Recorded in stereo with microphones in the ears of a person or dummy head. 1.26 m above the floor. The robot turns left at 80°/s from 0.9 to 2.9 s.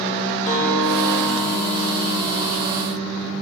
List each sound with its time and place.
0.5 s a guitar: 50° left, 3 m; by 3.3 s 110° right, 3 m